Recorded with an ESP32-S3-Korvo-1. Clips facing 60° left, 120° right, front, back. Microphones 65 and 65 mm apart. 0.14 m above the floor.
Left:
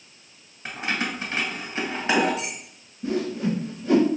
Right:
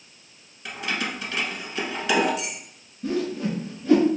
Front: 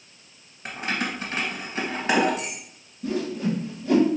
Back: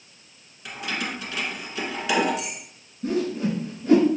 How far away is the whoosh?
About 2 m.